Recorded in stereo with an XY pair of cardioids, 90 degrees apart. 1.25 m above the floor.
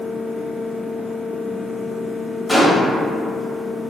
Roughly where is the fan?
Ahead left.